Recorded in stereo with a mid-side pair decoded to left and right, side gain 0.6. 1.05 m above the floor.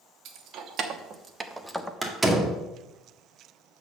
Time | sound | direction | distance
0.2 | keys jangling | 60° right | 1.5 m
2.0 | a door slam | 10° right | 1.8 m